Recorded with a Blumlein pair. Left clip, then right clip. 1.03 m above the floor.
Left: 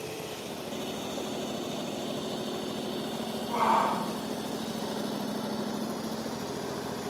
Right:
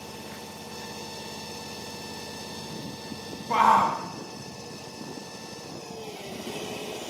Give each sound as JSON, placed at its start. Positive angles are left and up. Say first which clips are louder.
{"t": 3.5, "sound": "a shout", "louder": "right 6 dB", "azimuth_deg": -55, "distance_m": 1.2}